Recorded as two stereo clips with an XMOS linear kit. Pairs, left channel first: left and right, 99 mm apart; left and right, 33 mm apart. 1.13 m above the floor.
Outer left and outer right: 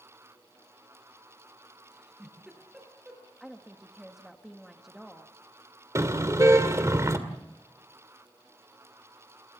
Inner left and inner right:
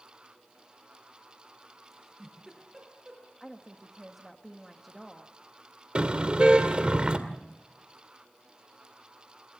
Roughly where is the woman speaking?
Centre.